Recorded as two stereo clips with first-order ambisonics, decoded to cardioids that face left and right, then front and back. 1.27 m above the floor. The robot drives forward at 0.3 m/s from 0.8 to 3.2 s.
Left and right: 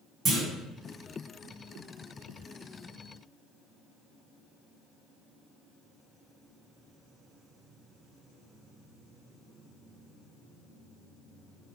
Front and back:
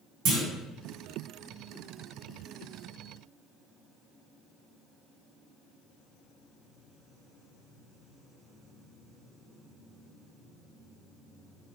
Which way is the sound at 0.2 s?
155° right.